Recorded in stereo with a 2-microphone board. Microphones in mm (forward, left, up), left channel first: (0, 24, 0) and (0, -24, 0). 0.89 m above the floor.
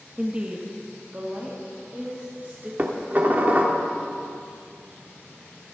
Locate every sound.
0.2 s a woman speaking: 20° right (ahead or behind), 1.2 m; by 2.7 s 40° right (ahead or behind), 3 m
2.8 s dishes clattering: 35° right (ahead or behind), 1.4 m